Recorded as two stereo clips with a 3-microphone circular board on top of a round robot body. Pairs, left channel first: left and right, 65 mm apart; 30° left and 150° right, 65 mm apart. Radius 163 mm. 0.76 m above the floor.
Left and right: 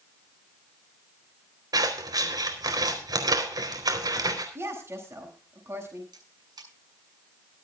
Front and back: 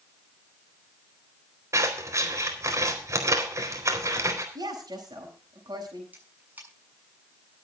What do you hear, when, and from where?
1.7 s scissors: 110° right, 4 m
4.5 s a woman speaking: 140° right, 7 m
6.1 s a camera shutter: 85° right, 7 m